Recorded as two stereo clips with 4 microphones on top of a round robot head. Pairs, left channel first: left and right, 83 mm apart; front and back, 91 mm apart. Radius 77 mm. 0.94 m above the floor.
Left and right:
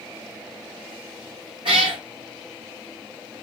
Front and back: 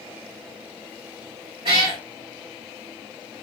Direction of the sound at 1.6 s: 135° right.